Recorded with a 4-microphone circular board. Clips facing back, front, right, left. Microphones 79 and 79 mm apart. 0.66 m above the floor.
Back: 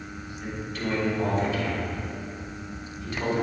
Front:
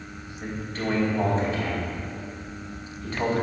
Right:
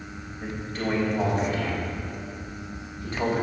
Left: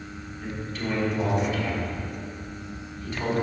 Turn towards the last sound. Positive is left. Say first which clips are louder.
# front 2 dB, right 2 dB
turn(degrees=-50)